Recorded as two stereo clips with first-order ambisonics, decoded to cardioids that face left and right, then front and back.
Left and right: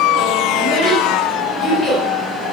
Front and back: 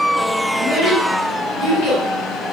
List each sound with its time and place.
0.6 s a child speaking: 50° right, 1.5 m; by 2.0 s 10° left, 1.5 m